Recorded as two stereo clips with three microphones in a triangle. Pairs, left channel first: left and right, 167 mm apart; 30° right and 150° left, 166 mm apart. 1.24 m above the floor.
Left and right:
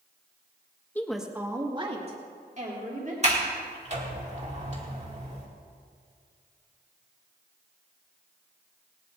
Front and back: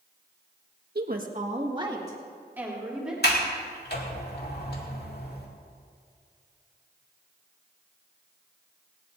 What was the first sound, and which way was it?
A woman speaking, 170° left.